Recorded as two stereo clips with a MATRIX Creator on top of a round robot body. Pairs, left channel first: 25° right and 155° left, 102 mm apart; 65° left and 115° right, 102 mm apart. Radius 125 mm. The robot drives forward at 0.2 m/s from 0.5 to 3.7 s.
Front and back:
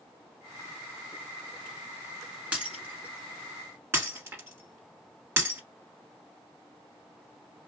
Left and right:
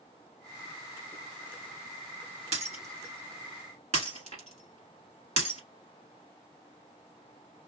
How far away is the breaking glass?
About 1.2 m.